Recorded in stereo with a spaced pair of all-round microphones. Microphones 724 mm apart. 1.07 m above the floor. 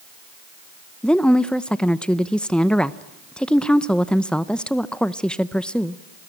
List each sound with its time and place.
1.0 s a woman speaking: centre (ahead or behind), 0.5 m